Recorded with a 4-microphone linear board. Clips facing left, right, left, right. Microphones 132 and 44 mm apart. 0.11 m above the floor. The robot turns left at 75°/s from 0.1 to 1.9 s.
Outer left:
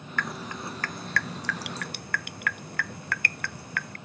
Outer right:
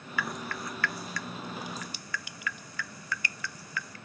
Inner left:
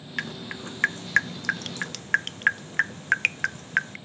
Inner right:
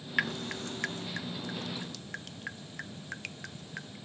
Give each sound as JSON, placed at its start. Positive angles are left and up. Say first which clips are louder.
{"t": 0.2, "sound": "dripping", "louder": "outer left 1 dB, inner right 1 dB", "side_deg": -5}